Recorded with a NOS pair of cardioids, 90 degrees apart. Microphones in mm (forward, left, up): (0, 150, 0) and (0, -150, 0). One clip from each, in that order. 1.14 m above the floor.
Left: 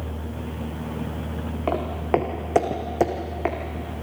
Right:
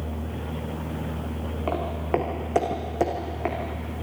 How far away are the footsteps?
About 4 m.